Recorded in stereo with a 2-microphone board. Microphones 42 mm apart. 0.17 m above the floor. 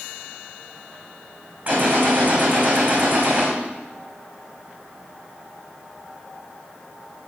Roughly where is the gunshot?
Right.